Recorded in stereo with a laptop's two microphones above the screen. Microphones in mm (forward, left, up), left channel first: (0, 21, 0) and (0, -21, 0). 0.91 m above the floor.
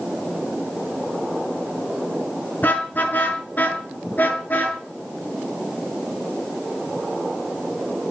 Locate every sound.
2.6 s a car horn: 45° left (ahead or behind), 5 m